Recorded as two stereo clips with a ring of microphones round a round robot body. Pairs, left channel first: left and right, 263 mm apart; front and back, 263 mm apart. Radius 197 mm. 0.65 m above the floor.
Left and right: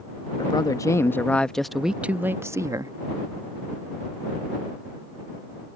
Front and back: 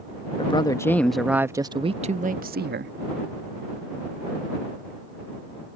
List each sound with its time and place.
0.4 s a man speaking: 40° left; by 2.9 s 160° right